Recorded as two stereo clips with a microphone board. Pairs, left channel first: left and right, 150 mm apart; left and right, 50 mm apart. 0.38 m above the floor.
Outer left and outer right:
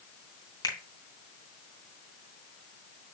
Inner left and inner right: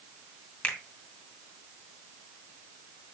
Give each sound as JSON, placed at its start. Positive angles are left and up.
{"t": 0.6, "sound": "a finger snap", "side_deg": 25, "distance_m": 2.0}